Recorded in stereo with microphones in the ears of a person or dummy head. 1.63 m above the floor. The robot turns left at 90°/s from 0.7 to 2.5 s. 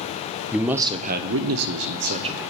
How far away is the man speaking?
About 0.6 m.